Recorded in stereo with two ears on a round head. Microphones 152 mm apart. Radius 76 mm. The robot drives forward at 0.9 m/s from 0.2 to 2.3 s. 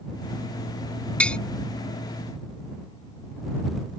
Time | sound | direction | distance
1.2 | tapping | 5° left (ahead or behind) | ?